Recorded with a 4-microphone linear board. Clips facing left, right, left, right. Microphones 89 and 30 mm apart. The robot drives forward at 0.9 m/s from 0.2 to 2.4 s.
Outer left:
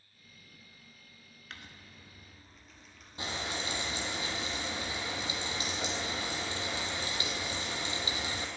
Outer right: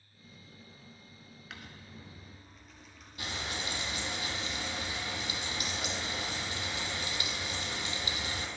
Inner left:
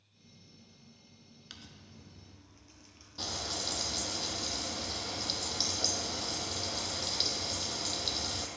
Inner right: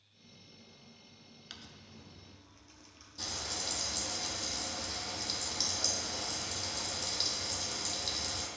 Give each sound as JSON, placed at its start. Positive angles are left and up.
{"t": 1.5, "sound": "crumpling", "side_deg": -5, "distance_m": 0.8}
{"t": 3.2, "sound": "frying", "side_deg": 30, "distance_m": 1.1}